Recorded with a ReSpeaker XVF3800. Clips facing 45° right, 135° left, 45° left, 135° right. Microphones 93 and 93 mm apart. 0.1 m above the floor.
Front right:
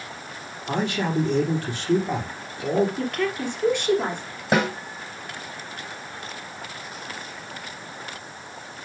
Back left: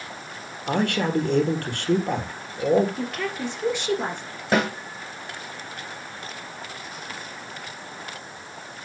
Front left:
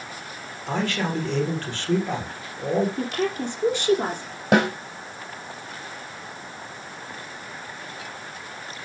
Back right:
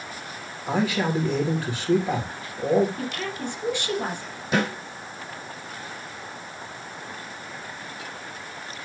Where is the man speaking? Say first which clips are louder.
Back left 2 dB, back right 2 dB; 145° left, 3.5 m.